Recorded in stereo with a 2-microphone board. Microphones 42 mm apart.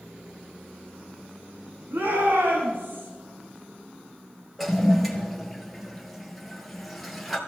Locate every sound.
1.9 s a shout: 70° right (ahead or behind), 4 m
4.6 s a toilet flushing: centre (ahead or behind), 1.8 m